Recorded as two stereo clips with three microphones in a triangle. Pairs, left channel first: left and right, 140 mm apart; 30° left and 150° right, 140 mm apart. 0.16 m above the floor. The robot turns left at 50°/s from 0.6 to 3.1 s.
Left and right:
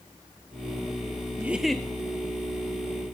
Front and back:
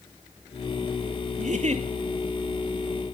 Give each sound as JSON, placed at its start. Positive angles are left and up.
{"t": 1.4, "sound": "a giggle", "azimuth_deg": -165, "distance_m": 0.8}